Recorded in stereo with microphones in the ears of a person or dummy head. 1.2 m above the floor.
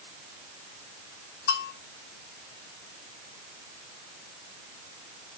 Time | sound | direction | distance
1.5 | a bell | 65° left (ahead or behind) | 6 m